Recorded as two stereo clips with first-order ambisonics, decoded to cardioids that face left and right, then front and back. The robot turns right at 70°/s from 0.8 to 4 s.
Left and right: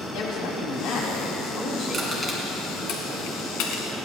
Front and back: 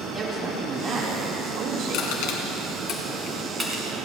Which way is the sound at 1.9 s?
10° right.